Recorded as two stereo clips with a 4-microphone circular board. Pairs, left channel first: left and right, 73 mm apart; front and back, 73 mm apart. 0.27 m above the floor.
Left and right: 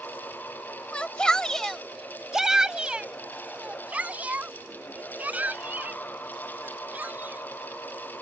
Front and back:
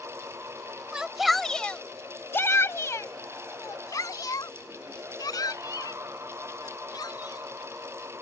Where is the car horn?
I don't hear a car horn.